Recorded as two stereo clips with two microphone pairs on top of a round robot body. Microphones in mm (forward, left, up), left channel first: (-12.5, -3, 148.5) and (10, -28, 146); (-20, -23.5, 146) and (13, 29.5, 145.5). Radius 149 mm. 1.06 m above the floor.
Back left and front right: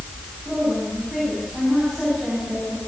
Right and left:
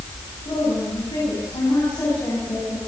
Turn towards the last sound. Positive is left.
turn(degrees=-140)